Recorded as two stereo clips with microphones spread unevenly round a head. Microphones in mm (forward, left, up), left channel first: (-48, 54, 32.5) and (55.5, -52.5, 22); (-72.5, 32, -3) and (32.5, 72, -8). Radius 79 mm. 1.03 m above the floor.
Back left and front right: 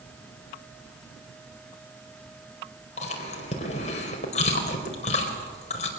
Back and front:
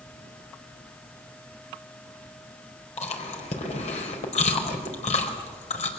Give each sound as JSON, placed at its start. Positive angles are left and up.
{"t": 3.0, "sound": "chewing", "azimuth_deg": 180, "distance_m": 4.5}